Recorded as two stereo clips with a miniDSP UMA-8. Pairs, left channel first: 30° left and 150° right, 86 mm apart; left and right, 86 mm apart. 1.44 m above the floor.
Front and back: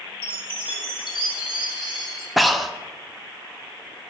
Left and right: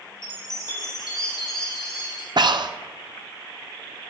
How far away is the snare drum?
I don't hear a snare drum.